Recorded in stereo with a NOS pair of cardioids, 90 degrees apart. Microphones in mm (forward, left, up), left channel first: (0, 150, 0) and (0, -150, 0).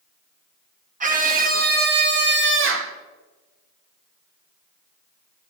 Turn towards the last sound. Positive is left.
turn(degrees=-50)